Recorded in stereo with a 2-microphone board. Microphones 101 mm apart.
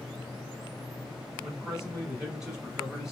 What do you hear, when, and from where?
1.4 s a man speaking: 5° right (ahead or behind), 1.2 m